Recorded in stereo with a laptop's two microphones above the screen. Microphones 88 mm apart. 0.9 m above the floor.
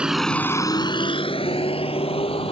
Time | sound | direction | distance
0.0 | a vehicle | 10° right (ahead or behind) | ?